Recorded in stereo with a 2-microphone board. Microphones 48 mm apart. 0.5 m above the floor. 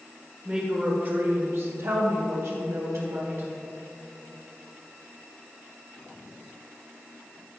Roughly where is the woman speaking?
Centre.